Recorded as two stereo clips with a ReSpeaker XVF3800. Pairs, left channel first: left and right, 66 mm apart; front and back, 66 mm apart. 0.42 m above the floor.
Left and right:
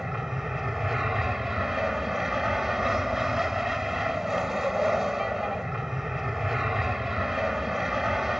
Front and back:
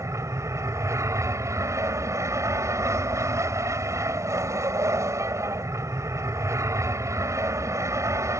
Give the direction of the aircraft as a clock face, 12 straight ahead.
6 o'clock.